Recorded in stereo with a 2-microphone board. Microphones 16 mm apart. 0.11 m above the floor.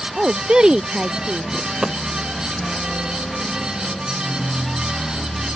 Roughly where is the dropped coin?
Right.